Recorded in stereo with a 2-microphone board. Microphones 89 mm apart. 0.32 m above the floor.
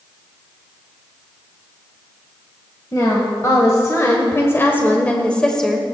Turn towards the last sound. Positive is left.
turn(degrees=5)  # may be behind; listen again after turning